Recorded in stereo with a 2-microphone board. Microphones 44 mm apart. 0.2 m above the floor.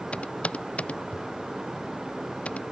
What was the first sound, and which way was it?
Typing on a keyboard, 25° left (ahead or behind).